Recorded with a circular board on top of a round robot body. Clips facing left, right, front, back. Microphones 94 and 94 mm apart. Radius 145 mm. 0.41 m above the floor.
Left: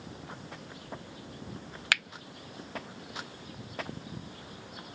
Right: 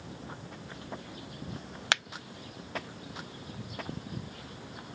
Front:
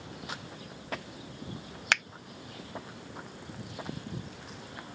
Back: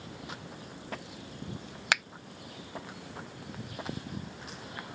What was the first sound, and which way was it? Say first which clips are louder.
A finger snap: right 1 dB, even; 105° right.